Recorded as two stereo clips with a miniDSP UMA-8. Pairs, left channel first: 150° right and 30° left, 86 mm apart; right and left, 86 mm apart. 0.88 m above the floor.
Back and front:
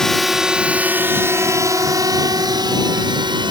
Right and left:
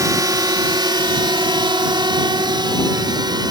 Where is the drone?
125° left; by 3.5 s 55° left.